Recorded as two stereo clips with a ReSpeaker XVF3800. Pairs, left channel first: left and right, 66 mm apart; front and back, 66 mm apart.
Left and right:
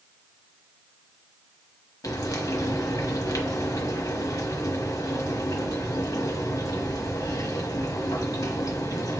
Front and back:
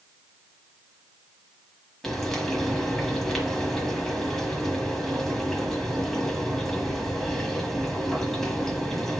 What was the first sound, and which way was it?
Frying, 80° left.